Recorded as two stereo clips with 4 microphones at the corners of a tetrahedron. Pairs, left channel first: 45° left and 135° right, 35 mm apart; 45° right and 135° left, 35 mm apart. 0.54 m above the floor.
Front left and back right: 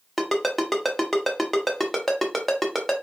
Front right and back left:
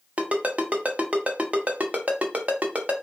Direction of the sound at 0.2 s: 135° left.